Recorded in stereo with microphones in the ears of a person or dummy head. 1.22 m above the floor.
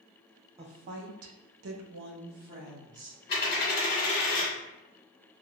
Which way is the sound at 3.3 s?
55° left (ahead or behind).